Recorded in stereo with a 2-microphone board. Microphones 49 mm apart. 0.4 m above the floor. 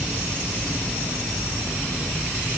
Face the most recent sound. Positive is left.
No sound to turn to.